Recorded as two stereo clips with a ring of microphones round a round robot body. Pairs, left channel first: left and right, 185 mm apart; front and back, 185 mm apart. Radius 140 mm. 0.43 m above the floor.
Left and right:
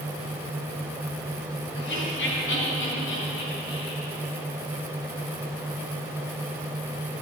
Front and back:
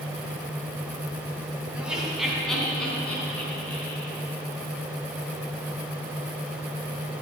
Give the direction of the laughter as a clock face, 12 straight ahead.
9 o'clock.